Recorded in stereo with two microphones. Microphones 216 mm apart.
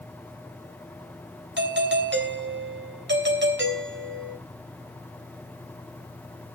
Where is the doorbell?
60° right (ahead or behind), 3.5 m.